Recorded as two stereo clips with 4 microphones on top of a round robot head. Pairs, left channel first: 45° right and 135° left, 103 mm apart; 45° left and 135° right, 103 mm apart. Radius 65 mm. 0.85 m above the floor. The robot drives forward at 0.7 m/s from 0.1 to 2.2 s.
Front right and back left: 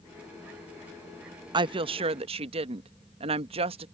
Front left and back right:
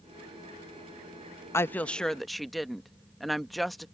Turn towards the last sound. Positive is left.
turn(degrees=135)